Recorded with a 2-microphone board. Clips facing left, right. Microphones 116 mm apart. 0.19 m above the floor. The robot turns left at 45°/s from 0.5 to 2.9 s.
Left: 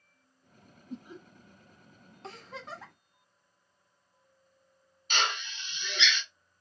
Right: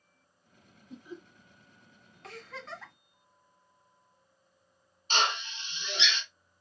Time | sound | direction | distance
0.9 | laughter | 40° left (ahead or behind) | 2 m
2.2 | a giggle | 30° left (ahead or behind) | 1.6 m
5.1 | a drill | 30° right (ahead or behind) | 1.4 m